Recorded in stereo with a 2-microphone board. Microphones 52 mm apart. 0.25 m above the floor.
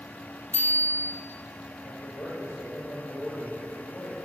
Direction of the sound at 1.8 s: 60° left (ahead or behind).